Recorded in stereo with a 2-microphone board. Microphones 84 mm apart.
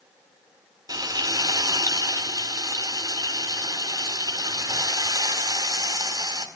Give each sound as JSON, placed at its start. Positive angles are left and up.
{"t": 0.9, "sound": "frying", "side_deg": -50, "distance_m": 4.5}